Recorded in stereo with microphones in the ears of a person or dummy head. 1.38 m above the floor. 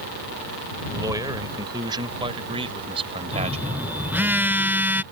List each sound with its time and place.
0.9 s a man speaking: 15° right (ahead or behind); by 4.3 s 30° right (ahead or behind)
3.3 s a phone buzzing: 15° right (ahead or behind)